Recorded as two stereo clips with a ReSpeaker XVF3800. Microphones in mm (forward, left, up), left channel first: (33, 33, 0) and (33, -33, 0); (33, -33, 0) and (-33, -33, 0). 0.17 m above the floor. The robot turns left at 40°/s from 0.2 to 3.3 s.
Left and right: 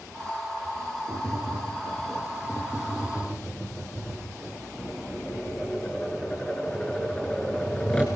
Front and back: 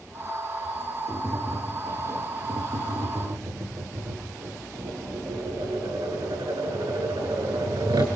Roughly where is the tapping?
Right.